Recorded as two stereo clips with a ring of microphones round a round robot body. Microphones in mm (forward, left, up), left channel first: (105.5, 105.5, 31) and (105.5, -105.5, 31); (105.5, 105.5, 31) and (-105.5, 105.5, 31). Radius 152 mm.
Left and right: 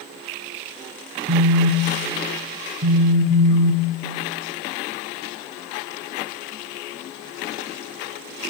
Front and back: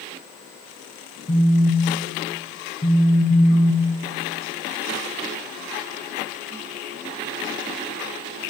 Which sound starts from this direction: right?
A phone buzzing, at 1.3 s.